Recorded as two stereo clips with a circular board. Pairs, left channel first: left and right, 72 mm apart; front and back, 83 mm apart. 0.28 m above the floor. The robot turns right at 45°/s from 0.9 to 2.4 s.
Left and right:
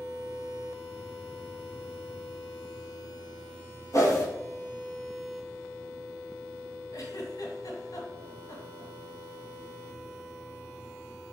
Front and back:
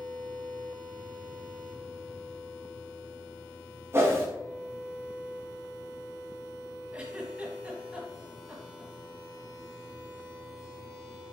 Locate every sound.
3.9 s a whoosh: 125° left, 1.9 m
6.9 s a giggle: 105° left, 1.5 m